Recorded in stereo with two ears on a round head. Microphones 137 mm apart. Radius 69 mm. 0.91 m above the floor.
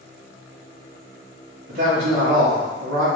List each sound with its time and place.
1.7 s a man speaking: 55° right (ahead or behind), 1.2 m